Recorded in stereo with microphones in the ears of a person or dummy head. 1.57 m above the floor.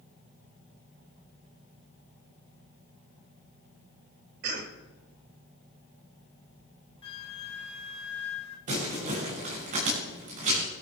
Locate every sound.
4.4 s a cough: 60° right (ahead or behind), 2.5 m
7.0 s a flute: 35° left (ahead or behind), 2 m
8.7 s crumpling: 45° right (ahead or behind), 7 m